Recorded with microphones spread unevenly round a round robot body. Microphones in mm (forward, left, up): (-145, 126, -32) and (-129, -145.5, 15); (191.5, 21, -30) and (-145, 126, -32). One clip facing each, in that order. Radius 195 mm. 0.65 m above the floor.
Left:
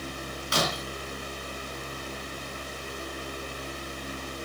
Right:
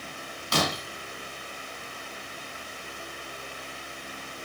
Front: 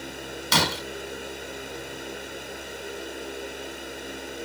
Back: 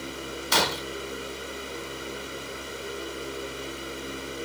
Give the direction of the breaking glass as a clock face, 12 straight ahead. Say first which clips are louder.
Right 2 dB, front 1 dB; 1 o'clock.